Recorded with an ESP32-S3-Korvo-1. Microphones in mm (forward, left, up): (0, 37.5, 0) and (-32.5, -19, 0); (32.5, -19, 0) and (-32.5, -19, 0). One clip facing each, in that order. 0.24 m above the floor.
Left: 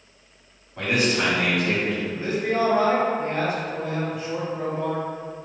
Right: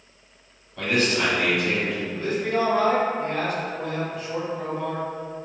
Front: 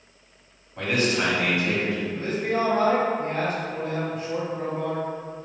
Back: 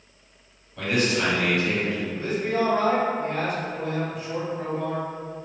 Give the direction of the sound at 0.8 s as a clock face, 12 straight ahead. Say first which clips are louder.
Even, even; 11 o'clock.